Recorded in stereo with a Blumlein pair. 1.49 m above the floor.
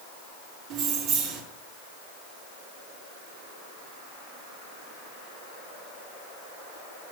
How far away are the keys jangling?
About 2 m.